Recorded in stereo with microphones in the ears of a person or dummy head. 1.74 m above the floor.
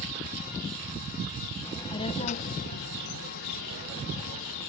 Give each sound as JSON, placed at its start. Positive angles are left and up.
{"t": 1.6, "sound": "a child speaking", "side_deg": 15}